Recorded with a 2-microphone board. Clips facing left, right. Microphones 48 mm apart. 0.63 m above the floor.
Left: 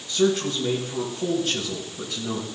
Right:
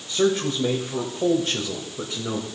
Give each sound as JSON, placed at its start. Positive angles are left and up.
{"t": 0.1, "sound": "a man speaking", "side_deg": -40, "distance_m": 2.5}